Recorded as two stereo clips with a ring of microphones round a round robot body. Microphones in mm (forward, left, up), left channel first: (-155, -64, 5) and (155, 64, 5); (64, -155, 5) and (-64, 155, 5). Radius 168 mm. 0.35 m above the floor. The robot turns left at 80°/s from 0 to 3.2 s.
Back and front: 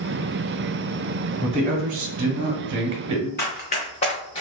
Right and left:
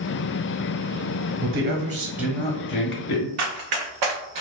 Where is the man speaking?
95° left, 1.1 m; by 3.3 s 45° right, 1.1 m.